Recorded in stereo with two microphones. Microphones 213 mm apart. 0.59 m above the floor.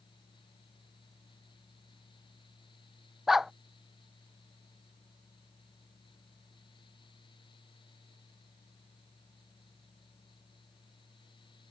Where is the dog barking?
Centre (ahead or behind).